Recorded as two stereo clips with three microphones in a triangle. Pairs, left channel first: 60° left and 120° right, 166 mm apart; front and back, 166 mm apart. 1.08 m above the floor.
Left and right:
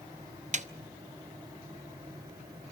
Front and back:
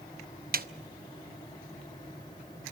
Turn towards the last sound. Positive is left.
turn(degrees=-160)